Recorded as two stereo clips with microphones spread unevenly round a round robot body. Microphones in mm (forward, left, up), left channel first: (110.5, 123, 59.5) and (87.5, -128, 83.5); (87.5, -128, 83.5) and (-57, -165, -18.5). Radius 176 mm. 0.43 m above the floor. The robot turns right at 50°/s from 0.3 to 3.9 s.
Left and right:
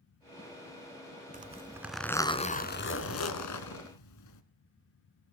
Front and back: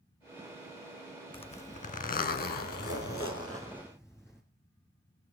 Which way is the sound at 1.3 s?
35° right.